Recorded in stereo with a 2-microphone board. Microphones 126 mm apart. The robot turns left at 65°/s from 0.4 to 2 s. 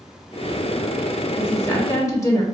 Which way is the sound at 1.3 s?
15° left (ahead or behind).